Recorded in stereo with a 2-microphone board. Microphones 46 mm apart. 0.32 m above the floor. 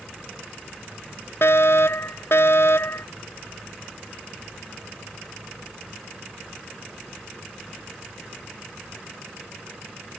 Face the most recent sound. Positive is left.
turn(degrees=60)  # may be behind; listen again after turning